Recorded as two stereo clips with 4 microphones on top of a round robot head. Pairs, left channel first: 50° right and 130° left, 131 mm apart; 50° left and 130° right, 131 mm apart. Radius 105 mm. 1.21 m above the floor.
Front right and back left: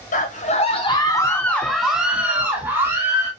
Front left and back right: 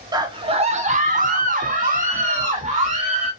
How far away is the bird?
No bird in this recording.